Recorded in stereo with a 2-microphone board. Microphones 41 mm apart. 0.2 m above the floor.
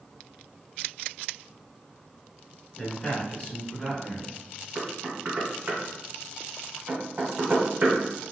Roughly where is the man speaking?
Centre.